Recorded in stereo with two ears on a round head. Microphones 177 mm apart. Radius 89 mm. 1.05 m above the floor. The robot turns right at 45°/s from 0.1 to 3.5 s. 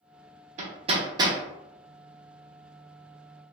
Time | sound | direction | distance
0.6 | hammering | 35° right (ahead or behind) | 0.6 m